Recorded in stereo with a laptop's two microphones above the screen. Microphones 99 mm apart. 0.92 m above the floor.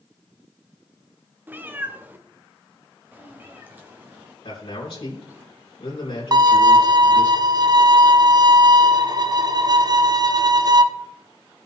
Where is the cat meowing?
20° right (ahead or behind), 0.7 m; by 5.4 s 15° right (ahead or behind), 3.5 m.